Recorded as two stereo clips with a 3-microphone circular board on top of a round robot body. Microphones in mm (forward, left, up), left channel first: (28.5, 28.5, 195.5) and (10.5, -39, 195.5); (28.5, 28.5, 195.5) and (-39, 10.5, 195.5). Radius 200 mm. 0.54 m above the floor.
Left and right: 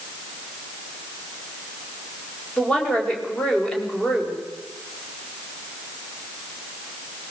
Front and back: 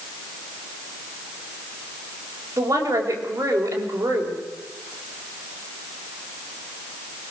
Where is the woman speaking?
150° left, 4.5 m.